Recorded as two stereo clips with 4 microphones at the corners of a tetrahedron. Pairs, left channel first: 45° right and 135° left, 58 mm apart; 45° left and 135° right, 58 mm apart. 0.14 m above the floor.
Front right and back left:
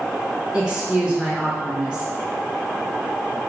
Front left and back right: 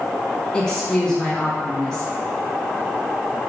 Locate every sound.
0.5 s a woman speaking: 90° left, 1.3 m